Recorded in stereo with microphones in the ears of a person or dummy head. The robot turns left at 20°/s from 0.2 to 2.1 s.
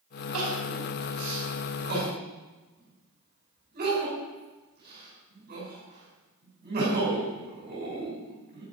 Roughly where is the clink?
No clink in this recording.